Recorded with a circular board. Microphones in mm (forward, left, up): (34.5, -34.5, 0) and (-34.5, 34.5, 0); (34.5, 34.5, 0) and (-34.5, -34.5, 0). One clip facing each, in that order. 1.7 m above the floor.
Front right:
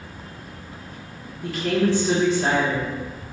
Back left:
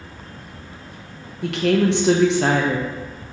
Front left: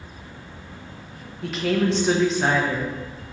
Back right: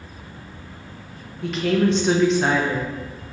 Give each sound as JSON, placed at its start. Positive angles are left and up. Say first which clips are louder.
{"t": 1.4, "sound": "a woman speaking", "louder": "back left 4 dB, back right 2 dB", "azimuth_deg": 135, "distance_m": 0.7}